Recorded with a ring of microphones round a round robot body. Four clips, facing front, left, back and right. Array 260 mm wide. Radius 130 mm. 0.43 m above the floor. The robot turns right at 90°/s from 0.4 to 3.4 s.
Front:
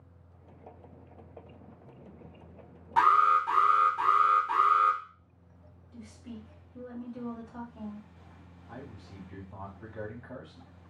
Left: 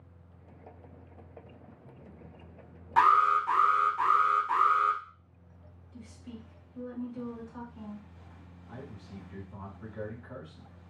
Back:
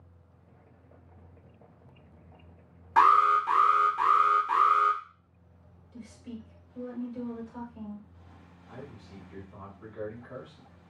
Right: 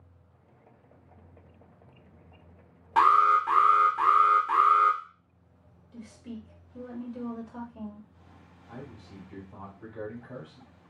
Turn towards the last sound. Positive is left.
turn(degrees=-25)